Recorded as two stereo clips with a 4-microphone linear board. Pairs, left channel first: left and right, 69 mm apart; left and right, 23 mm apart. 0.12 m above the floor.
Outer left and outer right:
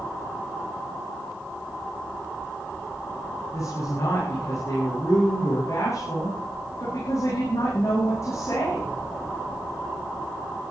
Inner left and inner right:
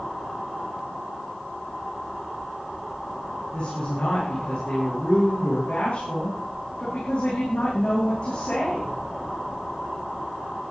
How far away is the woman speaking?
About 7.5 m.